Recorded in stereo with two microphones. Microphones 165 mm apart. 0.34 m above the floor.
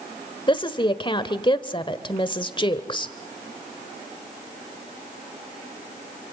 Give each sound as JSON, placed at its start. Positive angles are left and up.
{"t": 0.5, "sound": "a woman speaking", "side_deg": 30, "distance_m": 1.0}